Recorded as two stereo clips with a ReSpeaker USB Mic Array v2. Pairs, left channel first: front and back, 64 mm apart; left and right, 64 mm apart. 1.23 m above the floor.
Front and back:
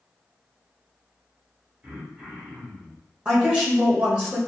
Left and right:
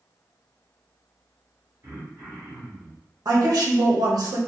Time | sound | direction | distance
1.8 | throat clearing | 120° right | 1.0 m
3.2 | a woman speaking | 105° right | 0.8 m